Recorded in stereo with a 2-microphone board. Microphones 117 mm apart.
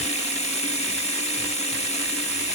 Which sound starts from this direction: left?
Running water, at 0.0 s.